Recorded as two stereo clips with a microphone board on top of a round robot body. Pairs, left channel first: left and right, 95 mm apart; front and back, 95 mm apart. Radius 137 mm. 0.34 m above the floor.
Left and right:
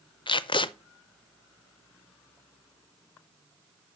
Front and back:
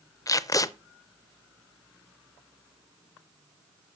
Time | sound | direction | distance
0.3 | tape being pulled | 55° left | 0.5 m